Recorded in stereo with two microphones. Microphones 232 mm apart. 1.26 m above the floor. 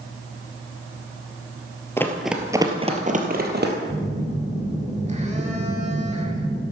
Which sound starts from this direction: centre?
Running footsteps, at 2.0 s.